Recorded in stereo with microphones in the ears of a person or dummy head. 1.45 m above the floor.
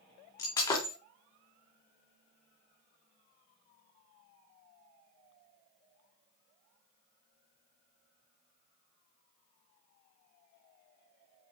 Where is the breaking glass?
25° left (ahead or behind), 2.5 m.